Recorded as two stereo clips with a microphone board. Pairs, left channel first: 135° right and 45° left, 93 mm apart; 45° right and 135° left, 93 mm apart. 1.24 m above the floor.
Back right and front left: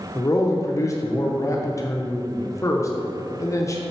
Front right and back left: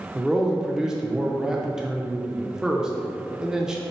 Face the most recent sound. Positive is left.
turn(degrees=-145)